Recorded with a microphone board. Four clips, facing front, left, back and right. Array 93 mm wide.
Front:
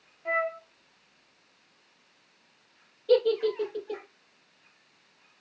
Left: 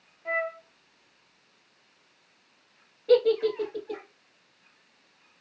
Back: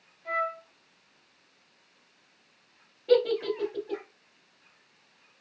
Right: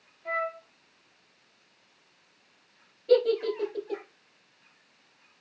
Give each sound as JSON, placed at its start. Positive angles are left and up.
{"t": 0.2, "sound": "a flute", "azimuth_deg": 15, "distance_m": 0.5}
{"t": 3.1, "sound": "a giggle", "azimuth_deg": 150, "distance_m": 1.5}